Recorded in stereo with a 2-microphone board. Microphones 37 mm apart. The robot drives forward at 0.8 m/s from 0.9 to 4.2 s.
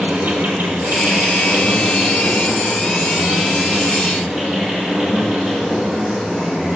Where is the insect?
70° right (ahead or behind), 0.9 m; by 6.8 s 15° right (ahead or behind), 3 m.